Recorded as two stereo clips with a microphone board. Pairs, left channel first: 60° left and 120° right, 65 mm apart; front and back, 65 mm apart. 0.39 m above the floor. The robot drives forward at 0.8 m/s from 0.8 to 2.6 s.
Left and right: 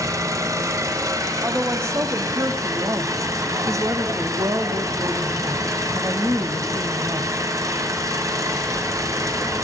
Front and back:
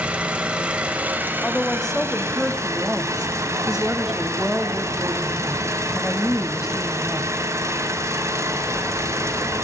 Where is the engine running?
110° right, 1.8 m; by 9.6 s 145° right, 2.5 m.